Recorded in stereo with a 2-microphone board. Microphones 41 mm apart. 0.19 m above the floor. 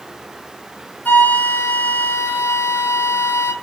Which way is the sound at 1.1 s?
50° left (ahead or behind).